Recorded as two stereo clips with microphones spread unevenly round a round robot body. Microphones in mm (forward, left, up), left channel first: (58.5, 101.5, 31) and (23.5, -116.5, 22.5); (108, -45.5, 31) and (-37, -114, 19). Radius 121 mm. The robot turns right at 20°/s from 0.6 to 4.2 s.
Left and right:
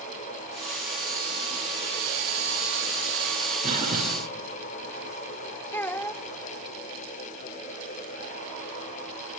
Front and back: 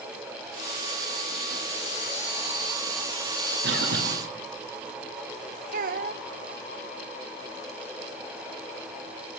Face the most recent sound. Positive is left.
turn(degrees=165)